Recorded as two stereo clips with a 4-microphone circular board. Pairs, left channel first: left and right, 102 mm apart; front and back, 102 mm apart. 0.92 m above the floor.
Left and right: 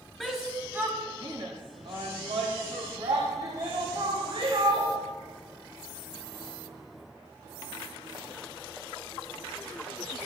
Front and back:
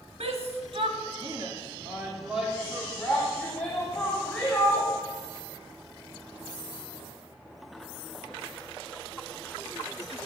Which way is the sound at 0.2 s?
Straight behind.